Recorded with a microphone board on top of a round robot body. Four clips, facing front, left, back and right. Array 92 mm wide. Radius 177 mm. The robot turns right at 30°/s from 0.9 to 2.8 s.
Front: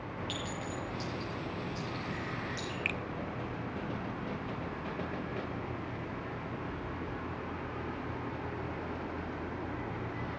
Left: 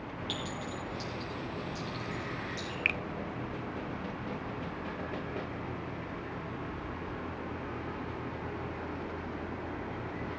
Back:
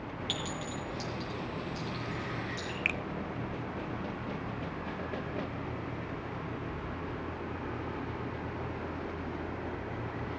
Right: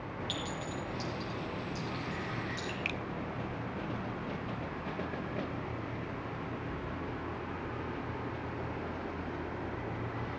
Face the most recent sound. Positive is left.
turn(degrees=115)